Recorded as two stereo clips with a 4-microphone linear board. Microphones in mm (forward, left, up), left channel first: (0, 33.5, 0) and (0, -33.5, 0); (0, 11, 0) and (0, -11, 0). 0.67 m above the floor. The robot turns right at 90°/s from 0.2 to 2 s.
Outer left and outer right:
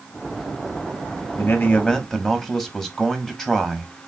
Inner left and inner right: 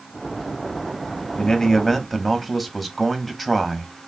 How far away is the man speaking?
About 1.0 m.